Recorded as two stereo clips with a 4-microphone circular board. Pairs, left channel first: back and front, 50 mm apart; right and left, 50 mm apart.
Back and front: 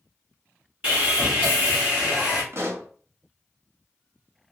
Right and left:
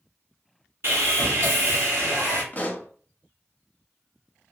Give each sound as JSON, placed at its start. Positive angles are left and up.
{"t": 0.8, "sound": "sawing", "azimuth_deg": 60, "distance_m": 2.5}
{"t": 2.5, "sound": "a pop", "azimuth_deg": -35, "distance_m": 0.8}